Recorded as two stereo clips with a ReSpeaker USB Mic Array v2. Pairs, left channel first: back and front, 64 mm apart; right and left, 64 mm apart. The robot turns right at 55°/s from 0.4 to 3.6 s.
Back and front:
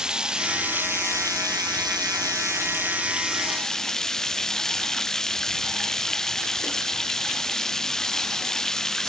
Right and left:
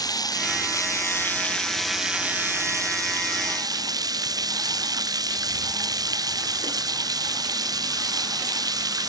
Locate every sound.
0.0 s running water: 80° right; by 9.1 s 100° left